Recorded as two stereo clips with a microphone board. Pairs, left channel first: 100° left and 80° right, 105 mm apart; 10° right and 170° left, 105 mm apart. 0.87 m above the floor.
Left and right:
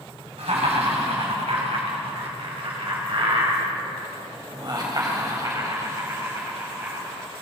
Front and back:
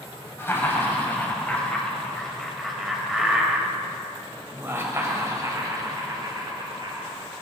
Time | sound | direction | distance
0.4 | laughter | 80° right | 5 m